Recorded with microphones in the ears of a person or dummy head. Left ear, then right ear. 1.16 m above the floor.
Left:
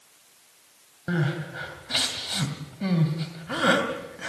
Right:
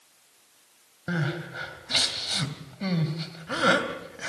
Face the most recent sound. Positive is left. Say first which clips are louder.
# left 1 dB
turn(degrees=-15)  # may be behind; listen again after turning